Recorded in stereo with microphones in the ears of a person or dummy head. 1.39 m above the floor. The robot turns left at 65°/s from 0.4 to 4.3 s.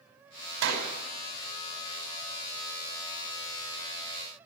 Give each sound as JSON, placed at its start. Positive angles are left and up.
{"t": 0.6, "sound": "a clap", "side_deg": -65, "distance_m": 5.5}